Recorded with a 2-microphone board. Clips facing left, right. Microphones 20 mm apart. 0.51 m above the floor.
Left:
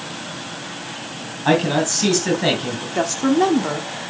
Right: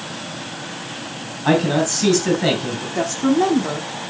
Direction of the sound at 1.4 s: 10° left (ahead or behind).